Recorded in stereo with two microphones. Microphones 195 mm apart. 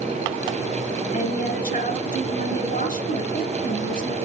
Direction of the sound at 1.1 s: 45° left (ahead or behind).